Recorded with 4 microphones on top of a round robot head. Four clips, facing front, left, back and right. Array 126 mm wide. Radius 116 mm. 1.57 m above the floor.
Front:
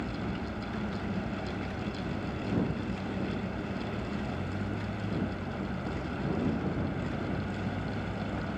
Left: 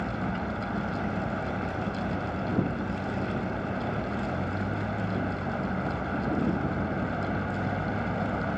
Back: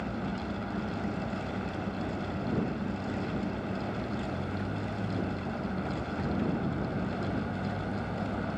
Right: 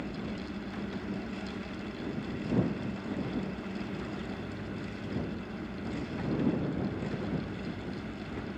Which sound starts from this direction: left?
A vehicle, at 0.0 s.